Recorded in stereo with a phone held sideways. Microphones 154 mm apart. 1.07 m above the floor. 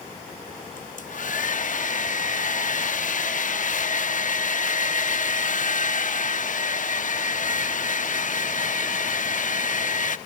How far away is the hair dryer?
About 0.8 m.